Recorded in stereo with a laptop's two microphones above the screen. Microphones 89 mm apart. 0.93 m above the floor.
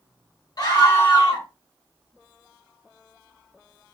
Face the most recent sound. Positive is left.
turn(degrees=50)  # may be behind; listen again after turning